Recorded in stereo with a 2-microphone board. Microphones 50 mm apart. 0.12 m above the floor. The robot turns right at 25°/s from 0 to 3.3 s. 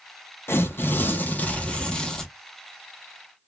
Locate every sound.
0.5 s tearing paper: 125° left, 0.5 m; by 2.3 s 170° left, 0.5 m